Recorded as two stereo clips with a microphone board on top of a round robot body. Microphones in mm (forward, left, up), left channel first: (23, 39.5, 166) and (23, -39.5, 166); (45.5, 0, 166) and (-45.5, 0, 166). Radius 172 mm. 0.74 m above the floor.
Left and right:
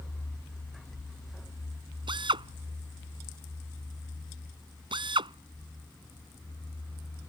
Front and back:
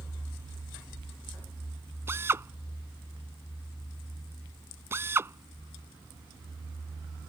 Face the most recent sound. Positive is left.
turn(degrees=-115)